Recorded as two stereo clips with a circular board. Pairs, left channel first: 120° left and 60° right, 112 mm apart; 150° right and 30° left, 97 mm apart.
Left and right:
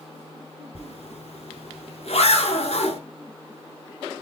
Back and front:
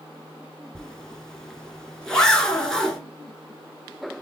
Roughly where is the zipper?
Behind left.